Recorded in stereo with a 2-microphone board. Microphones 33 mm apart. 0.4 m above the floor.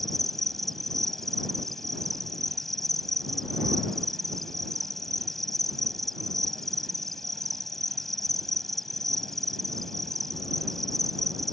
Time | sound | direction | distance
0.0 | an insect | 10° left (ahead or behind) | ?